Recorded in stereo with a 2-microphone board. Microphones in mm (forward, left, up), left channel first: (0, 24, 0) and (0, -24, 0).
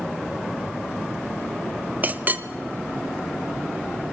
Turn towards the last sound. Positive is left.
turn(degrees=-35)  # may be behind; listen again after turning